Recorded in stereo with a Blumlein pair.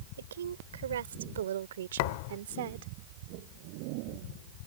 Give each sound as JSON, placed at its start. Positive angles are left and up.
{"t": 0.2, "sound": "a woman speaking", "azimuth_deg": -65}
{"t": 2.0, "sound": "a thud", "azimuth_deg": 45}